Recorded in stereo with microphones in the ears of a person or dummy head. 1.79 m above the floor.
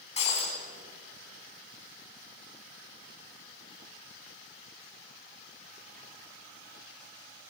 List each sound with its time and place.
0.2 s breaking glass: 30° left (ahead or behind), 5 m